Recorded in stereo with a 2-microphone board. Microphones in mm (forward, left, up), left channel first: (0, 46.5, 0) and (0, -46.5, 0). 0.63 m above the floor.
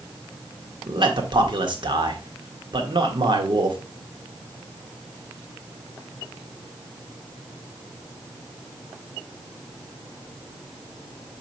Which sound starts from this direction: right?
A man speaking, at 0.9 s.